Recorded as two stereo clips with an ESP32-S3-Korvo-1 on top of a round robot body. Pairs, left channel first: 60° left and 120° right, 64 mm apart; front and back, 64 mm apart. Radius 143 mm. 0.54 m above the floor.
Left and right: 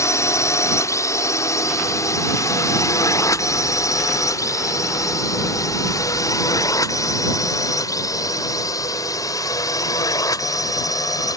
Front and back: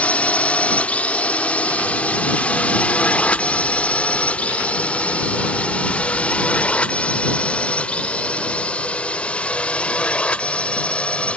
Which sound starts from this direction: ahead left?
A drone, at 0.0 s.